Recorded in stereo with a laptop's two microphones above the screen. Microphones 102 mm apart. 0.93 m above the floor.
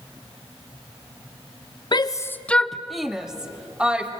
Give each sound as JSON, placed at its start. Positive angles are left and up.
{"t": 1.9, "sound": "a shout", "side_deg": 50, "distance_m": 0.5}